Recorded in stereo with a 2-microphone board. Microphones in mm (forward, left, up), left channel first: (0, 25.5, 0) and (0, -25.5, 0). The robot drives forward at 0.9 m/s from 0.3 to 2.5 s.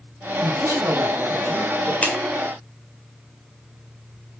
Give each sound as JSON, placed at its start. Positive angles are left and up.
{"t": 0.4, "sound": "a man speaking", "side_deg": -50, "distance_m": 2.5}
{"t": 2.0, "sound": "a clap", "side_deg": 30, "distance_m": 1.8}